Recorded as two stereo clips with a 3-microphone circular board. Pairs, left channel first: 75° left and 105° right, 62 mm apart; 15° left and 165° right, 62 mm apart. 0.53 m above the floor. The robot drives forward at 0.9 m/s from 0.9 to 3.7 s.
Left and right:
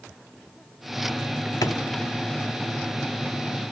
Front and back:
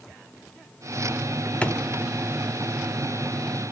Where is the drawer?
80° left, 1.1 m; by 1.8 s 90° left, 1.1 m.